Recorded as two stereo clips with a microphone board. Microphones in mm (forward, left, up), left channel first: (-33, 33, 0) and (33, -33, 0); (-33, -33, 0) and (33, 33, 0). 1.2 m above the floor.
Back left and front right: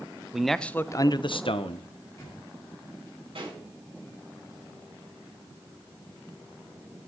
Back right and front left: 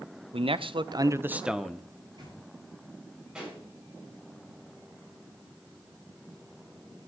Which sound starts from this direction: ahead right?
A pop, at 3.4 s.